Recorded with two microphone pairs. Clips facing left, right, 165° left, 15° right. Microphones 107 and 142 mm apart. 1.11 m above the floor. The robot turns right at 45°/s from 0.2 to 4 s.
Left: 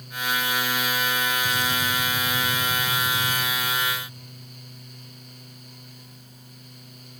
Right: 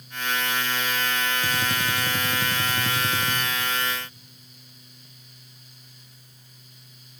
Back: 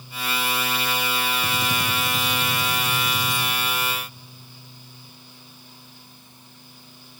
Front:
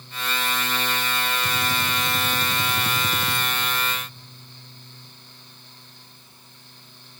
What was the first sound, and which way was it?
A gunshot, 135° right.